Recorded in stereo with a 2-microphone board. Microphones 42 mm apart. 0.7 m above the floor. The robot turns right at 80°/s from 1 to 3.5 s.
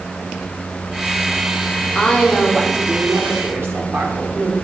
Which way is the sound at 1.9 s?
140° left.